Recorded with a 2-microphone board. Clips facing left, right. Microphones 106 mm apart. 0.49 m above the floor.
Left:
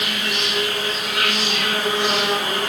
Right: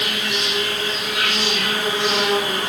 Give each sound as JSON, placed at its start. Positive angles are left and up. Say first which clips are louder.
{"t": 0.0, "sound": "an insect", "louder": "even", "side_deg": 55, "distance_m": 4.0}